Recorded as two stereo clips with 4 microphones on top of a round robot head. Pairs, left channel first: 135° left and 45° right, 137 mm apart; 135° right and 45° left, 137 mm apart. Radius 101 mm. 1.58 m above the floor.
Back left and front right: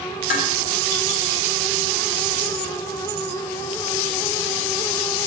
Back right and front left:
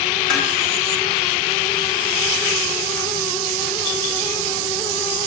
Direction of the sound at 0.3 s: 140° left.